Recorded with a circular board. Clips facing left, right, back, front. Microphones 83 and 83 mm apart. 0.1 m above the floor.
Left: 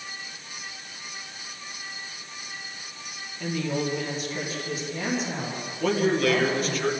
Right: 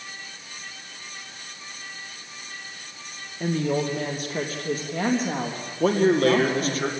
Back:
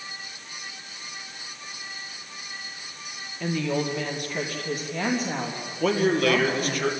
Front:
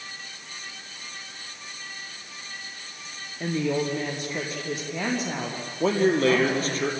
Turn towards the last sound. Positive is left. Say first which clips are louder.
# right 4 dB, front 1 dB
turn(degrees=-50)